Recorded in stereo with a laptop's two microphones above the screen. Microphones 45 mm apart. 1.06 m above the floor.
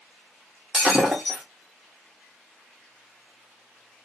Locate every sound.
0.7 s breaking glass: 10° right (ahead or behind), 1.1 m